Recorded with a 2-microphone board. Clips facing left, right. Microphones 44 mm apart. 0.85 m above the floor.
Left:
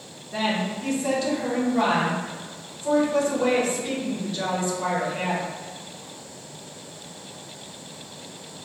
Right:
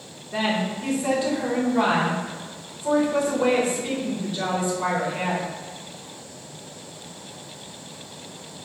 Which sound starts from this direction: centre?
A woman speaking, at 0.3 s.